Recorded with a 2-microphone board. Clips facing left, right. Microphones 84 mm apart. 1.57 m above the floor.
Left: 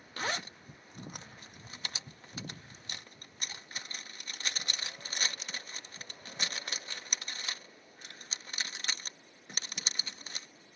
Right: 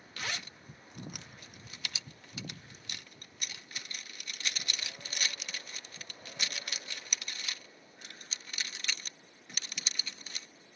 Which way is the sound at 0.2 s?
35° left (ahead or behind).